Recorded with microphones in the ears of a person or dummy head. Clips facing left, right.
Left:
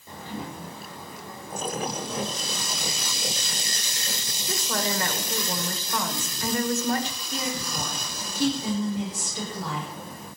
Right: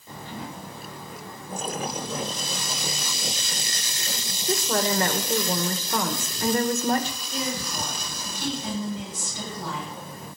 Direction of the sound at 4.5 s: 40° right (ahead or behind).